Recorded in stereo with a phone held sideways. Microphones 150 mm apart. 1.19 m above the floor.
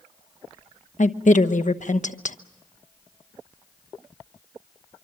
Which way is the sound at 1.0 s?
60° left (ahead or behind).